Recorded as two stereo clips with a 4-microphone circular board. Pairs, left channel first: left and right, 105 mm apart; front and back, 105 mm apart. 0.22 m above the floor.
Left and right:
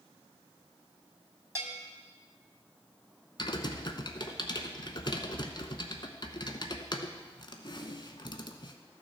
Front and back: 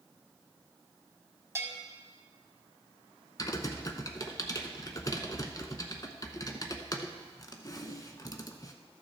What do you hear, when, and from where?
1.6 s a bell: 135° right, 1.3 m
3.4 s typing on a keyboard: 50° left, 0.8 m